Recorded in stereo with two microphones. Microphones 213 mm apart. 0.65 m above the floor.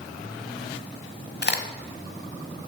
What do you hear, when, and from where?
1.4 s a crack: 55° left (ahead or behind), 1.1 m